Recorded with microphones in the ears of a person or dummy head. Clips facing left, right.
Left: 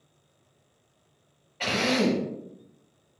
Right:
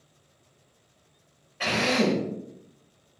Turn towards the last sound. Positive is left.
turn(degrees=-5)  # may be behind; listen again after turning